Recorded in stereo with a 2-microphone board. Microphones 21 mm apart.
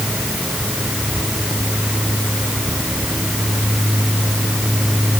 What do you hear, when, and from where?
Only background noise.